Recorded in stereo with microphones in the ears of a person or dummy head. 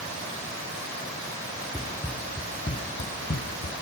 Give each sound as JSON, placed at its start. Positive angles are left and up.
{"t": 1.7, "sound": "running footsteps", "side_deg": -5, "distance_m": 2.0}